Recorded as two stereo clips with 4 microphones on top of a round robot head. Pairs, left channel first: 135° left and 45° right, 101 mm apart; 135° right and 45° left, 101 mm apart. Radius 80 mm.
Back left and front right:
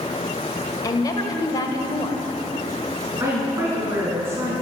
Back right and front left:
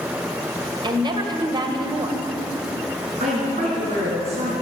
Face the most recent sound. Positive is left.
turn(degrees=25)